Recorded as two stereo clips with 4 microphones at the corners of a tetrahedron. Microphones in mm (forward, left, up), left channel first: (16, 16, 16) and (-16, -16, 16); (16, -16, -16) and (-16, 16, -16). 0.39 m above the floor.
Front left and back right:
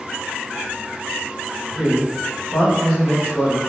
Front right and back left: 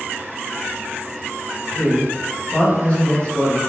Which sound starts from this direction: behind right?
A man speaking, at 1.7 s.